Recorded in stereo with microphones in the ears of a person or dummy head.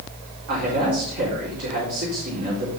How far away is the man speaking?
About 4.5 m.